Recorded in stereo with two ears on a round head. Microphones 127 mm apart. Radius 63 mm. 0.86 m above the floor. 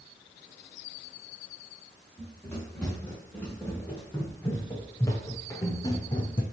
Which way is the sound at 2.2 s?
10° left (ahead or behind).